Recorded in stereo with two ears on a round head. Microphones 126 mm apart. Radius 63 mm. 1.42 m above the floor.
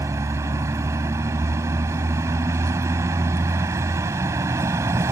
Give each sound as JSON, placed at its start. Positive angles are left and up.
{"t": 0.0, "sound": "a vehicle", "side_deg": -20}